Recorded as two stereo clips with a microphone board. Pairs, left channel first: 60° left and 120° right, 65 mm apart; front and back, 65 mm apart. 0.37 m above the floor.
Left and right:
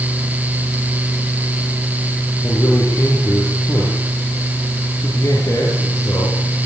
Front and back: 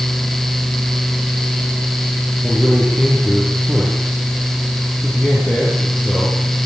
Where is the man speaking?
90° left, 9.5 m.